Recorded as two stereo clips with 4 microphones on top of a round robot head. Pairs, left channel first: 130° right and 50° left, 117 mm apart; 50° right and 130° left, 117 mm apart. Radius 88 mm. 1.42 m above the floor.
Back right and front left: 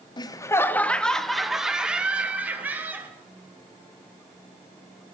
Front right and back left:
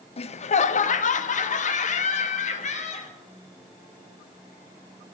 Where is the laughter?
80° right, 0.7 m; by 3.1 s 25° right, 2 m.